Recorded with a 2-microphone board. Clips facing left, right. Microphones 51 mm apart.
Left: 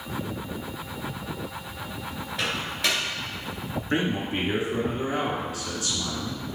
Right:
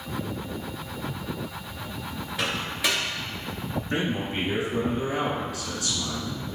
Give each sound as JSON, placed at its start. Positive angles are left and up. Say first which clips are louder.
{"t": 2.4, "sound": "a microwave", "louder": "even", "side_deg": -5, "distance_m": 2.0}
{"t": 3.9, "sound": "a man speaking", "louder": "left 2 dB", "side_deg": 25, "distance_m": 1.7}